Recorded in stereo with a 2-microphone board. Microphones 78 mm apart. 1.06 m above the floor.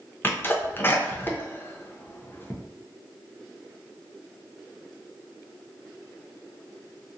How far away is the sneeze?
About 0.6 m.